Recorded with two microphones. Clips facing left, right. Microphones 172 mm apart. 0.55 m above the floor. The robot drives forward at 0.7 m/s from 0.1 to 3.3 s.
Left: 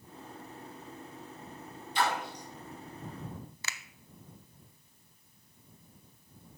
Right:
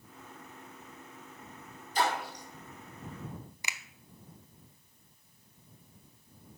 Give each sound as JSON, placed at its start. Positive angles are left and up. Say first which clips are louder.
{"t": 1.9, "sound": "a splash", "louder": "right 1 dB", "side_deg": -40, "distance_m": 4.5}
{"t": 3.6, "sound": "a finger snap", "louder": "right 3 dB", "side_deg": -15, "distance_m": 0.5}